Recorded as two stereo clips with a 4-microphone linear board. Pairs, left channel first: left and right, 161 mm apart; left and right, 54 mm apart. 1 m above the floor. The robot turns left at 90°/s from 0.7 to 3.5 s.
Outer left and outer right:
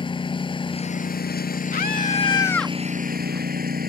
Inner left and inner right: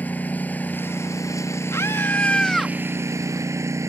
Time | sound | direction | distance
0.0 | a lawn mower | 145° left | ?
1.7 | a scream | 90° left | ?